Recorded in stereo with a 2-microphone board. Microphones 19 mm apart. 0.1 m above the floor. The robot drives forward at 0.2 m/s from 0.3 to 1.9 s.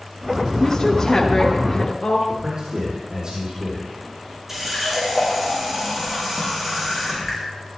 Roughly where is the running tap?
Centre.